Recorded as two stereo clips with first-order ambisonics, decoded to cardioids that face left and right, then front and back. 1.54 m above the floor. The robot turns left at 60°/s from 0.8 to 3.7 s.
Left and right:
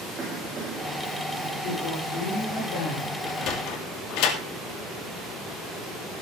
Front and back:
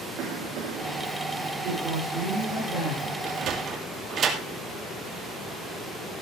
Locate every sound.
0.2 s a cough: 155° right, 3.5 m; by 1.1 s 175° right, 3.5 m
1.6 s a woman speaking: 130° left, 5 m; by 3.1 s 40° left, 5 m
3.2 s a sliding door: 145° left, 2.5 m; by 4.4 s 115° left, 2.5 m